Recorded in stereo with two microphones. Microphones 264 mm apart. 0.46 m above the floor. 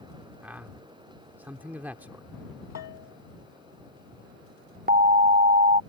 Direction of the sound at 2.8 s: 75° left (ahead or behind).